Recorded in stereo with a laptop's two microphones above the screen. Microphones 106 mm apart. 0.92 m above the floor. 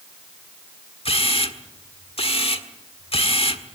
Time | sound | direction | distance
1.1 | a camera shutter | 65° left (ahead or behind) | 1.6 m